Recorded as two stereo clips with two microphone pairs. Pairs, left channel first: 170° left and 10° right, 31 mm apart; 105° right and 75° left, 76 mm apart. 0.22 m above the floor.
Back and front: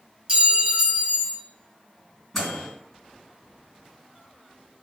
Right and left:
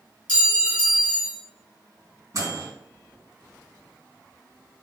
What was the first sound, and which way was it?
A clink, 40° right.